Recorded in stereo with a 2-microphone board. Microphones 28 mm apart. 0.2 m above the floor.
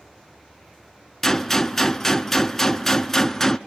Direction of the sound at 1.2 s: 10° left (ahead or behind).